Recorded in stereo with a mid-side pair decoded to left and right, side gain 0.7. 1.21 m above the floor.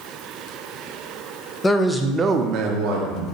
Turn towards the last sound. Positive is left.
turn(degrees=-80)